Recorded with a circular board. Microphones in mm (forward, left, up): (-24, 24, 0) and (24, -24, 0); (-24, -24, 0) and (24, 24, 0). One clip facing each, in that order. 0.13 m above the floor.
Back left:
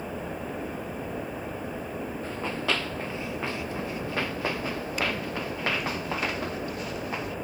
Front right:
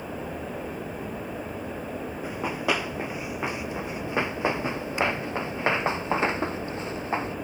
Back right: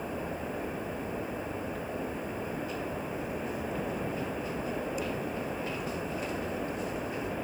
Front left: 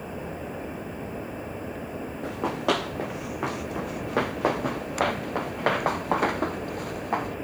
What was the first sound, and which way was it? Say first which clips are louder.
Running footsteps: front right 3 dB, front left 9 dB; 35° left.